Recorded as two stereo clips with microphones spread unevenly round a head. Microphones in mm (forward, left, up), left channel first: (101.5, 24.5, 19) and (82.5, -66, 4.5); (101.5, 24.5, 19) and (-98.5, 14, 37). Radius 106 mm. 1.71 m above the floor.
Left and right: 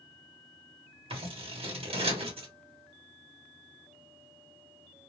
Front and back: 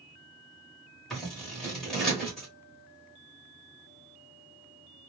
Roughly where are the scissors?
Right.